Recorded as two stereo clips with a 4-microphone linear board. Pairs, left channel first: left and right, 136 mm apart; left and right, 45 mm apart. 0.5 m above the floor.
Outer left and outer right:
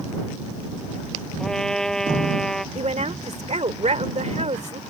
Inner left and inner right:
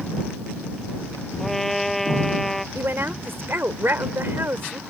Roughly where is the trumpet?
Centre.